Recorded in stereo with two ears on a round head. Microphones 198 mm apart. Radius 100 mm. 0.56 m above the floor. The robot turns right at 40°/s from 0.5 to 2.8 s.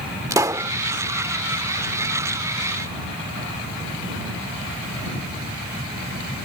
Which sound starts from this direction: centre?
A pop, at 0.3 s.